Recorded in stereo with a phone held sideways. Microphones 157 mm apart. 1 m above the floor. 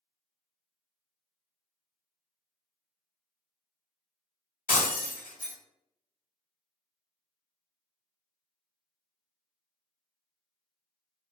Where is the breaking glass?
70° left (ahead or behind), 0.9 m.